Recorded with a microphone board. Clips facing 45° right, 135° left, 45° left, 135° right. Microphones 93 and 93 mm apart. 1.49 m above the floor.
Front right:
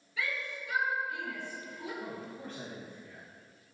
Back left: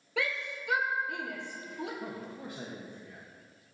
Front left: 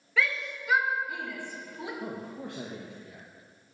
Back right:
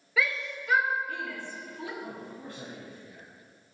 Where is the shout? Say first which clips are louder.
Back left 3 dB, even; 140° left, 1.4 m; by 1.9 s 115° left, 1.9 m.